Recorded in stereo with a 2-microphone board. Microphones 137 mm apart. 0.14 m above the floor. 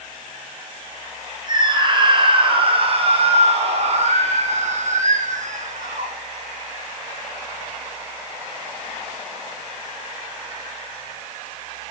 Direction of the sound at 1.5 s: 30° right (ahead or behind).